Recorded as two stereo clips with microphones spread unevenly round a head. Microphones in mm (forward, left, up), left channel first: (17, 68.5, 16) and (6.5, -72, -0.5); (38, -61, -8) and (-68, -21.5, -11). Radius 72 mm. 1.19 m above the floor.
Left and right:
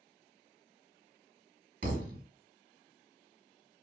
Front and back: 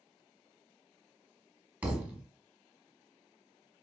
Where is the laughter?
I don't hear laughter.